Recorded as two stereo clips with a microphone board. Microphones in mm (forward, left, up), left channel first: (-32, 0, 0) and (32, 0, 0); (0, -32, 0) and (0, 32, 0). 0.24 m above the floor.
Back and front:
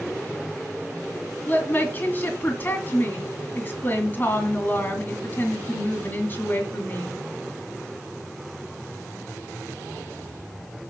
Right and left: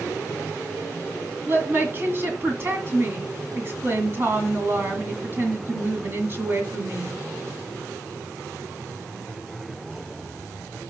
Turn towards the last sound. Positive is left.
turn(degrees=130)